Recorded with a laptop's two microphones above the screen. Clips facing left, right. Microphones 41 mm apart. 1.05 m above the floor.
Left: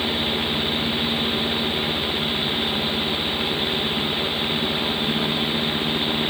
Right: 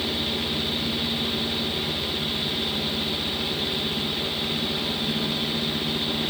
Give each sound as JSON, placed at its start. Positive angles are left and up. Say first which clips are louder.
{"t": 0.0, "sound": "a fan", "louder": "left 4 dB", "side_deg": 35, "distance_m": 1.1}